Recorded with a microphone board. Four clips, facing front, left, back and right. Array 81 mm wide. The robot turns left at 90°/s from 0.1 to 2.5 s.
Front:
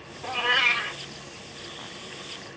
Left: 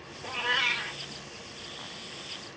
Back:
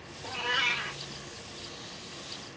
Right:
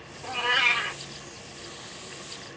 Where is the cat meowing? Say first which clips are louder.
Right 4 dB, front 6 dB; 15° right, 1.2 m; by 1.0 s 85° right, 1.2 m.